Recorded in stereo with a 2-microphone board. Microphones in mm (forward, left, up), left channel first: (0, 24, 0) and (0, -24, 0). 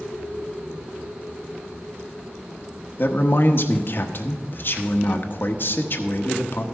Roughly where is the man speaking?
Left.